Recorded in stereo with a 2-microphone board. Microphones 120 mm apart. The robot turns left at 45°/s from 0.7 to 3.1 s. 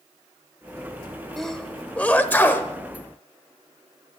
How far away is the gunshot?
I don't hear a gunshot.